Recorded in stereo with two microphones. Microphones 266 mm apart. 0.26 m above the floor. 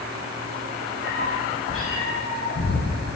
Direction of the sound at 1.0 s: 45° left (ahead or behind).